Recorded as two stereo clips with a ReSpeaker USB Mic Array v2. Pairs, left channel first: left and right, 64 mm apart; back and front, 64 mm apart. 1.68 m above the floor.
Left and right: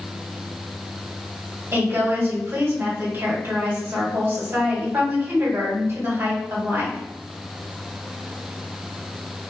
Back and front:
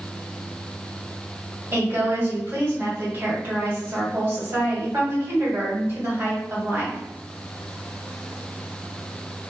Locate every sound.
1.7 s a woman speaking: 45° right, 1.6 m